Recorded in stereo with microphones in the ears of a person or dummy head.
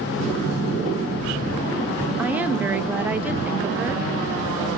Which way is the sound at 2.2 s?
10° right (ahead or behind).